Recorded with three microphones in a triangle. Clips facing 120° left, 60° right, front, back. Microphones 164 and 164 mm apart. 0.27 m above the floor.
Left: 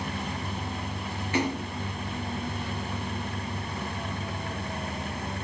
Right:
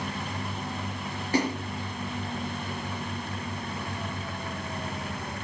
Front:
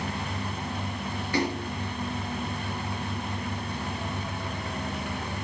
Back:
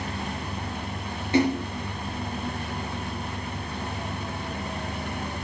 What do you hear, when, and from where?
1.3 s a splash: 110° right, 4.5 m